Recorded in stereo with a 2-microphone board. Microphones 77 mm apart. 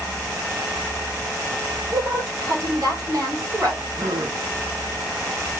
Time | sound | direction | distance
1.9 | a woman speaking | 60° right (ahead or behind) | 2.5 m
4.0 | a gasp | 60° right (ahead or behind) | 1.4 m